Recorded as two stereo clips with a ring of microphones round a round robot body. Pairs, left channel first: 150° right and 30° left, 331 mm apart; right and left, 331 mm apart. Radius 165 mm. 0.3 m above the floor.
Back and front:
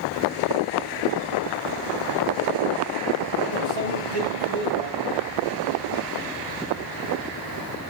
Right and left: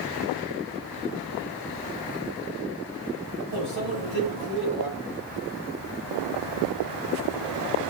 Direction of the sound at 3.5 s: 30° left.